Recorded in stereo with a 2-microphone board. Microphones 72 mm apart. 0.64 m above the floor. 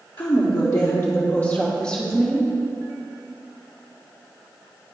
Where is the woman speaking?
55° left (ahead or behind), 1.0 m; by 2.5 s 5° left (ahead or behind), 1.7 m.